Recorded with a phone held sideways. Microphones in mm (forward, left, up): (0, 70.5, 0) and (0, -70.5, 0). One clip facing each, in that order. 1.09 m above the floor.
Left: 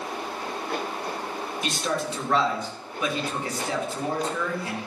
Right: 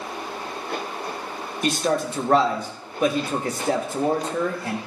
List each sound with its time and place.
1.6 s a man speaking: 45° right (ahead or behind), 1.2 m